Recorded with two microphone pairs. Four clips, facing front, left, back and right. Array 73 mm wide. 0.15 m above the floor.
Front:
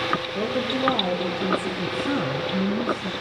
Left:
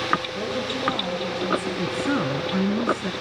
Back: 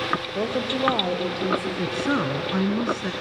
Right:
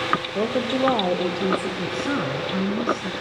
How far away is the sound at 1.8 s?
About 1.6 m.